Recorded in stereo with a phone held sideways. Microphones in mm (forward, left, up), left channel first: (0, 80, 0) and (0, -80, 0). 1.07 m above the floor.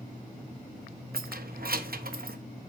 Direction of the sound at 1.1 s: 70° right (ahead or behind).